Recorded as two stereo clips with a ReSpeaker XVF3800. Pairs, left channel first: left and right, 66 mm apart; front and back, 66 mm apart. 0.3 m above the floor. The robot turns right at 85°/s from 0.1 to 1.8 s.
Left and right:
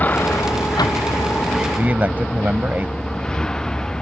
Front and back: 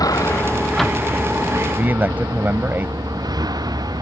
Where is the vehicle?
25° left; by 4.0 s 170° left.